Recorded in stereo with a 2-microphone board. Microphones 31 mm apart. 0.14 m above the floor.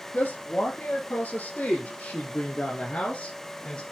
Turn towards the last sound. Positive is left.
turn(degrees=30)  # may be behind; listen again after turning